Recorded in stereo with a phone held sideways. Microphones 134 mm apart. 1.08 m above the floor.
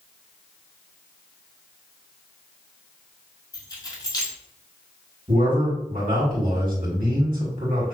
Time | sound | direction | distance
3.5 | keys jangling | 30° left (ahead or behind) | 1.2 m
5.3 | a man speaking | 75° right (ahead or behind) | 2.0 m